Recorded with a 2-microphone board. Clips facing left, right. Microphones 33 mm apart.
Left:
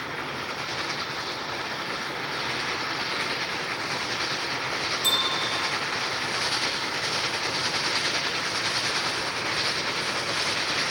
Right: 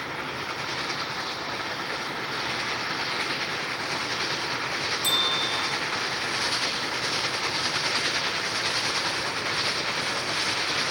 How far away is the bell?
About 5 m.